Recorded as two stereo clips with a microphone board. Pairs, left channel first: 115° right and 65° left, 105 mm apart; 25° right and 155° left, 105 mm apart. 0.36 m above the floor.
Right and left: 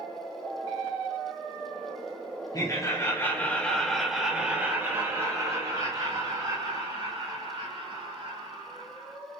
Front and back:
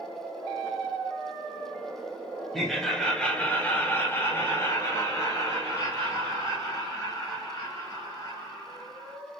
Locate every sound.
2.5 s laughter: 110° right, 1.4 m; by 9.2 s 35° left, 3.5 m